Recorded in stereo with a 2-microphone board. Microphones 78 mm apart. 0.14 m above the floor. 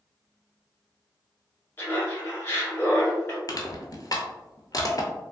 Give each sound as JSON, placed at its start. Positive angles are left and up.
{"t": 1.8, "sound": "laughter", "side_deg": 25, "distance_m": 1.8}
{"t": 3.5, "sound": "crushing", "side_deg": 55, "distance_m": 0.6}